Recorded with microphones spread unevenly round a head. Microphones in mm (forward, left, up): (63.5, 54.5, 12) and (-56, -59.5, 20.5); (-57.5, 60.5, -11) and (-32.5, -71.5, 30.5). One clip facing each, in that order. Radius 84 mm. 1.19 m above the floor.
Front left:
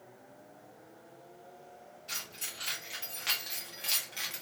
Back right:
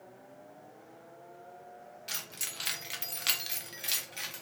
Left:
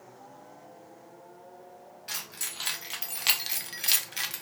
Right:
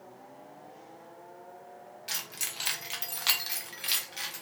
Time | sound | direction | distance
2.1 | keys jangling | 140° right | 1.0 m